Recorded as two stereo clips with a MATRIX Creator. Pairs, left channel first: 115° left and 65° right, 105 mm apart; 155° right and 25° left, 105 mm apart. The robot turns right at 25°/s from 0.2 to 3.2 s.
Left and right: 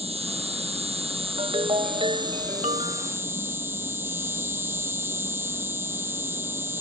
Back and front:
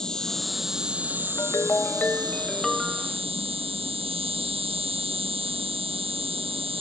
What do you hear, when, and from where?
0.0 s an insect: 75° right; by 6.8 s straight ahead
1.4 s a ringtone: 100° right; by 3.1 s 60° right